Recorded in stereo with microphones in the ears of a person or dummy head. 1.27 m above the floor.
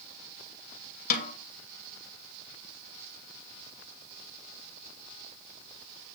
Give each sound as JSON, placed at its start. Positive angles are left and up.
{"t": 1.1, "sound": "a snare drum", "side_deg": 45, "distance_m": 2.0}